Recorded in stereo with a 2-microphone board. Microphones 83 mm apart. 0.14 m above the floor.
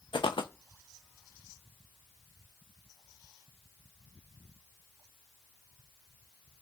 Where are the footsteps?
80° left, 0.6 m.